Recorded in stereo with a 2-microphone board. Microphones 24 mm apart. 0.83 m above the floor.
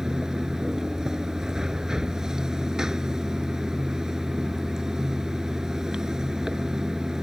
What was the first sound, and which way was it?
Running water, 25° right (ahead or behind).